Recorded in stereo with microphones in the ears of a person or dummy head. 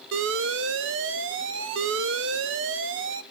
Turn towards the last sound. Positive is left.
turn(degrees=-50)  # may be behind; listen again after turning